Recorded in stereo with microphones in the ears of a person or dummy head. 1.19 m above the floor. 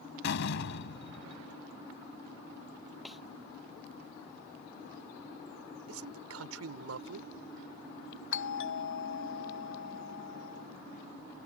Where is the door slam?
70° left (ahead or behind).